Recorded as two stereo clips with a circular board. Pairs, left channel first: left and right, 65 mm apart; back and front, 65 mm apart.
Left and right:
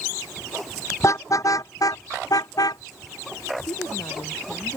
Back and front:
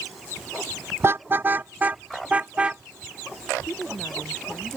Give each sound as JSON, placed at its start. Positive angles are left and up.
{"t": 1.0, "sound": "a car horn", "azimuth_deg": 50}
{"t": 3.7, "sound": "a woman speaking", "azimuth_deg": 115}